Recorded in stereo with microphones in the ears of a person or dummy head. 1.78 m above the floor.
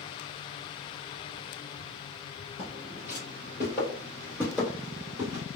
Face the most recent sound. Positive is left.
turn(degrees=-15)  # may be behind; listen again after turning